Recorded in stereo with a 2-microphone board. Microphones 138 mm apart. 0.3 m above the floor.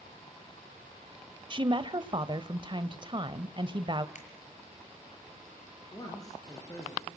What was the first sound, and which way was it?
A woman speaking, 35° right (ahead or behind).